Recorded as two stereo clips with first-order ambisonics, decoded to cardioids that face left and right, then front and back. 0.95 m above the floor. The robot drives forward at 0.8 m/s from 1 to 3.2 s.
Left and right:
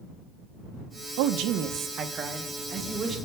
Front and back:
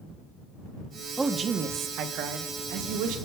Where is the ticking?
I don't hear ticking.